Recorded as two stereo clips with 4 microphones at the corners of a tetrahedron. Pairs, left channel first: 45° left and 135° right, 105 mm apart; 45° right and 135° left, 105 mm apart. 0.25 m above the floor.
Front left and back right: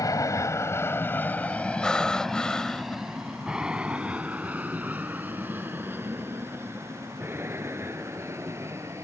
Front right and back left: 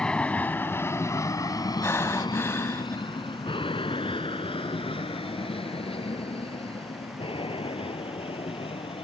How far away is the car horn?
No car horn in this recording.